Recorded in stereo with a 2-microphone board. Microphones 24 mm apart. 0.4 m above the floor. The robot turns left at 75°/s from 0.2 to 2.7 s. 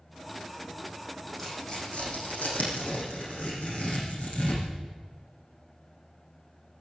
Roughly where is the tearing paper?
Centre.